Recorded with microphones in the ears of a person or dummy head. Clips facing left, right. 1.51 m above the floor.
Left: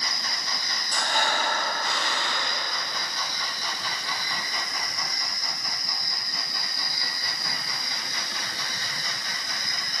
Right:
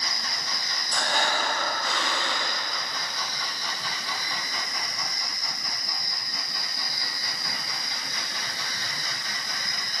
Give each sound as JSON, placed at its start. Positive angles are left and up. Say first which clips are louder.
{"t": 0.9, "sound": "breathing", "louder": "even", "side_deg": -80, "distance_m": 7.5}